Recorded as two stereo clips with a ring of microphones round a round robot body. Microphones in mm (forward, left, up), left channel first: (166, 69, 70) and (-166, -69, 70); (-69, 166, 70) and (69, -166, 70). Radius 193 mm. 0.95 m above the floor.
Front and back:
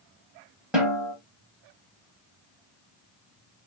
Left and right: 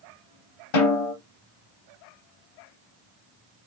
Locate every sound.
0.7 s a snare drum: 115° left, 2 m